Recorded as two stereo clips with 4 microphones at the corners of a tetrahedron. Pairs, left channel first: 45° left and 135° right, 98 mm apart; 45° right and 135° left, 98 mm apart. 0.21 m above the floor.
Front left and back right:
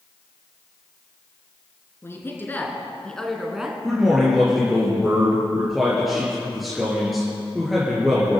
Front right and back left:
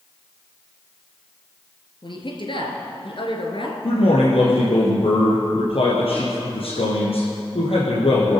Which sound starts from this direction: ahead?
A woman speaking, at 2.0 s.